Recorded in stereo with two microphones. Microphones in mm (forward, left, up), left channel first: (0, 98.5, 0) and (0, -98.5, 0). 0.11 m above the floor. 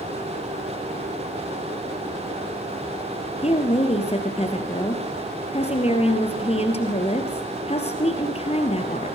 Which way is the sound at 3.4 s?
30° left (ahead or behind).